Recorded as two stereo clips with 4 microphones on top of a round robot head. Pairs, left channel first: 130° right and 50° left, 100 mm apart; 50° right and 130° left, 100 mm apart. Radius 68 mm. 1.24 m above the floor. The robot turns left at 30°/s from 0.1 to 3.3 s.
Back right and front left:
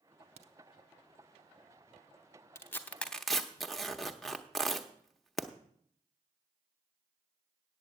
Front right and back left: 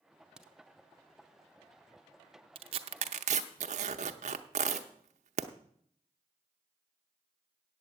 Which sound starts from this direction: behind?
Tearing paper, at 2.5 s.